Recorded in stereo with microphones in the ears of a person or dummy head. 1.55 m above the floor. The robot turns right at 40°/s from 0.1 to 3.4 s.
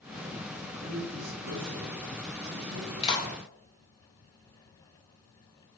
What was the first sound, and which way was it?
A man speaking, 130° right.